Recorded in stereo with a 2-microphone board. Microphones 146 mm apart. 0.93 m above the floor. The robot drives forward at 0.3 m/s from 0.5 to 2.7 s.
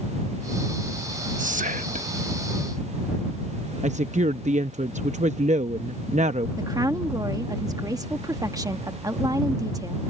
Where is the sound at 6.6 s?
25° right (ahead or behind).